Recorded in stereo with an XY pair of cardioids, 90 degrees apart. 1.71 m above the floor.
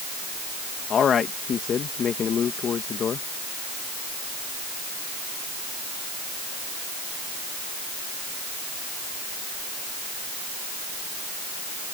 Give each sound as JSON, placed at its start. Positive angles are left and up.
{"t": 0.9, "sound": "a man speaking", "azimuth_deg": 60}